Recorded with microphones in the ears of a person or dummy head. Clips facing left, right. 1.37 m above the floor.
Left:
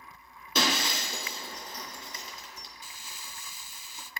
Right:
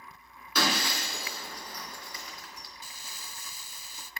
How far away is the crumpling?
About 0.6 m.